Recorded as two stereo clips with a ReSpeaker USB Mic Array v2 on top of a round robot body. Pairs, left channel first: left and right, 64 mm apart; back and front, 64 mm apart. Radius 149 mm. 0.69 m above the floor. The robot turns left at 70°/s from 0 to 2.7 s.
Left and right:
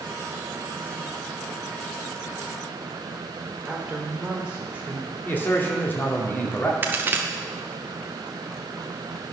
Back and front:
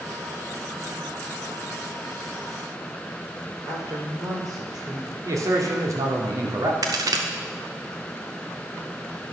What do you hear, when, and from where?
3.7 s a woman speaking: 15° right, 3 m
5.2 s a man speaking: 30° left, 2 m
6.8 s a crack: 30° right, 0.6 m